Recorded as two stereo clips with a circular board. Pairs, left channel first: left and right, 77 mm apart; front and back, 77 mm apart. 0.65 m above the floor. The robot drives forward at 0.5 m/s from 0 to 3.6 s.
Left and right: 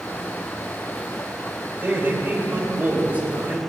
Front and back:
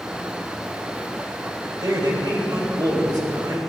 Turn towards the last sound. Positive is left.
turn(degrees=-160)